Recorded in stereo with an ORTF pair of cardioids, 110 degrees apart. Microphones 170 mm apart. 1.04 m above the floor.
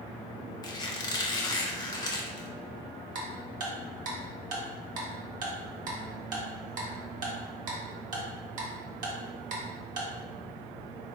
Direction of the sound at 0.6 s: 25° left.